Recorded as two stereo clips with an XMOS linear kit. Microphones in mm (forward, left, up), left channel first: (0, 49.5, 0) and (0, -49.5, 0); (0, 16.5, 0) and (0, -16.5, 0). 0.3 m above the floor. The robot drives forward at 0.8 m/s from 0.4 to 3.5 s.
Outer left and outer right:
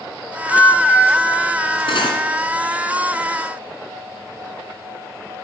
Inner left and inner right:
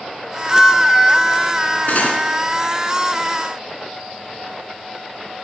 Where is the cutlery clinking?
60° left (ahead or behind), 1.8 m; by 2.2 s 50° left (ahead or behind), 1.9 m.